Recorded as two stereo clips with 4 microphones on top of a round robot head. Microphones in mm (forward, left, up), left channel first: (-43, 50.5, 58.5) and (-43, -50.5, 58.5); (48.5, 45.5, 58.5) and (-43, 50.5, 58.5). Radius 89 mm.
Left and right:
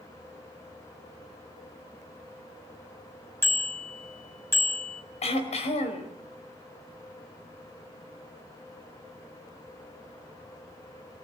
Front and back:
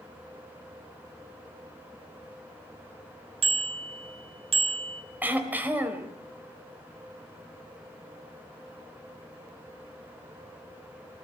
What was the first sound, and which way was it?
A bicycle bell, 160° left.